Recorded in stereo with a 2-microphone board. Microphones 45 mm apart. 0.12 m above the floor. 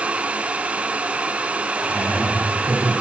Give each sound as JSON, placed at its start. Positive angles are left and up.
{"t": 1.7, "sound": "laughter", "side_deg": -35, "distance_m": 7.5}